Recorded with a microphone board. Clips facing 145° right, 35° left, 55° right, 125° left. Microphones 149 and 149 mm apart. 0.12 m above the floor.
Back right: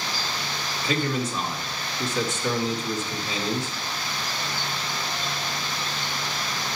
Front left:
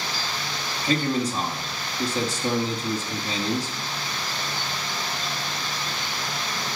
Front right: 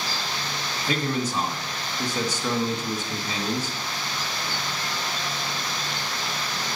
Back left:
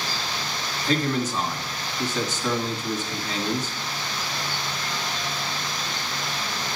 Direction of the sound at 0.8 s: 15° left.